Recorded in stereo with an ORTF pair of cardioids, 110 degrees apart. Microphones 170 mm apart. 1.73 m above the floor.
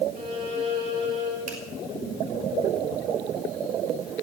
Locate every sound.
0.1 s a violin: 55° right, 4.5 m
1.5 s a finger snap: 55° right, 5.5 m